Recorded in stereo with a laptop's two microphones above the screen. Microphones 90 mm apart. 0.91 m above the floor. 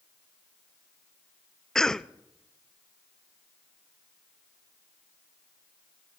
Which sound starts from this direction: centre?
A cough, at 1.8 s.